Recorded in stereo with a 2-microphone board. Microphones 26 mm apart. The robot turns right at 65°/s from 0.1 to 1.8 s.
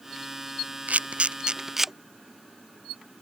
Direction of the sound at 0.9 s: 75° right (ahead or behind).